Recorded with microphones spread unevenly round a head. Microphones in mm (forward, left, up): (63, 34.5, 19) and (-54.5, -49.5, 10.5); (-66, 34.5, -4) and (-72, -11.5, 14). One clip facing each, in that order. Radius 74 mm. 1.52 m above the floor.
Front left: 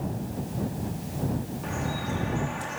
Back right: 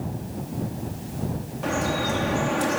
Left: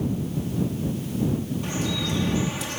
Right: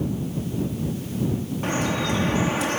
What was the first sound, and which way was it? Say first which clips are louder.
Dripping: back right 6 dB, right 3 dB; 125° right.